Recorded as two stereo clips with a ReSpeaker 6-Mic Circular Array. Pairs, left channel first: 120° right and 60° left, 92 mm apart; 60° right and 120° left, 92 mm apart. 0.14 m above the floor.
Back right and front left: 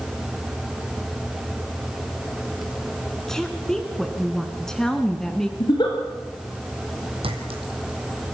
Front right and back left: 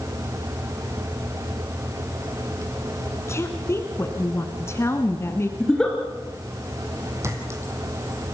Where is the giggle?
140° right, 3 m.